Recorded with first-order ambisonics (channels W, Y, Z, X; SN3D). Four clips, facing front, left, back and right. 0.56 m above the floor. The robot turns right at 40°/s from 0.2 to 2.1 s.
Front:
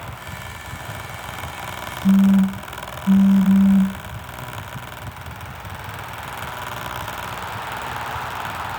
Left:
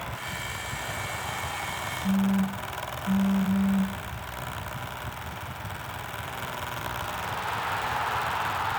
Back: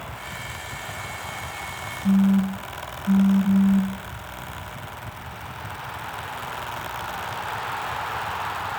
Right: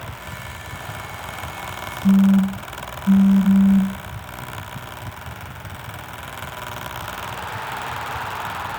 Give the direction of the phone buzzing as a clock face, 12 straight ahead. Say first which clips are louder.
Right 11 dB, front 4 dB; 1 o'clock.